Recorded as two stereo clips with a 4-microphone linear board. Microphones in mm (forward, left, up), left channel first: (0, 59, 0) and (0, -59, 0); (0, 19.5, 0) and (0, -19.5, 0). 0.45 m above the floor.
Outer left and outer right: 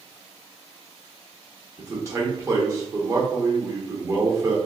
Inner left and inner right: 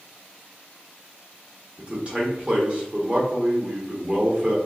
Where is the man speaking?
30° right (ahead or behind), 0.9 m.